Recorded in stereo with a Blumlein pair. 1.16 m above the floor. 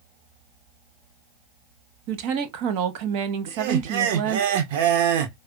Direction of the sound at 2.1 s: 40° right.